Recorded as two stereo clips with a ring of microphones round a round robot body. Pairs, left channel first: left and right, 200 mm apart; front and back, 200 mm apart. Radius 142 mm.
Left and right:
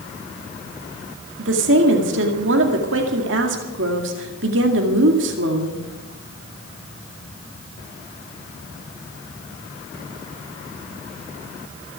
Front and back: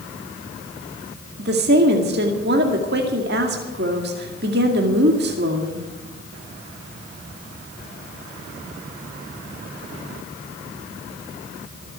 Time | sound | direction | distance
1.4 | a woman speaking | 130° right | 2 m